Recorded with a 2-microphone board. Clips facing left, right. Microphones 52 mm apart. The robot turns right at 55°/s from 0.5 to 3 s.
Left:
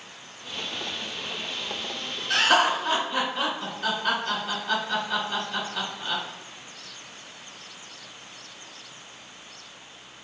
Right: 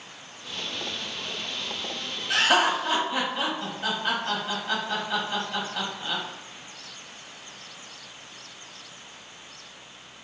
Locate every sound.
2.3 s laughter: 20° right (ahead or behind), 1.1 m